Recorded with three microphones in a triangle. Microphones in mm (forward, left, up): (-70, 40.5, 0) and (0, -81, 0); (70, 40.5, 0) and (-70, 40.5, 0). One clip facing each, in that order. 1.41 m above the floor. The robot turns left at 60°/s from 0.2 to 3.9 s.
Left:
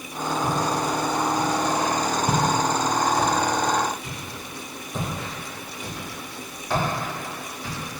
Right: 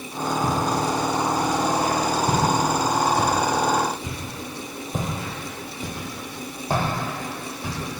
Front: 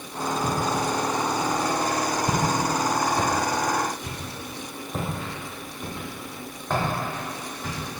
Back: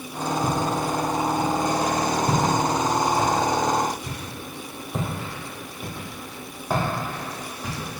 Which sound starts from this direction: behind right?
Footsteps, at 0.4 s.